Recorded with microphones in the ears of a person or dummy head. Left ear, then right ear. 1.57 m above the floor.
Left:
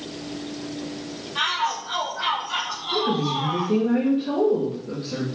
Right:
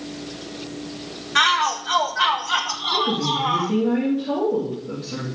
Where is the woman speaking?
5° left (ahead or behind), 3 m.